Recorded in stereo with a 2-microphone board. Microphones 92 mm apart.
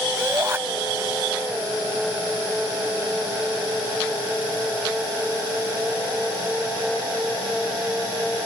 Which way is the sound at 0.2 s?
25° right (ahead or behind).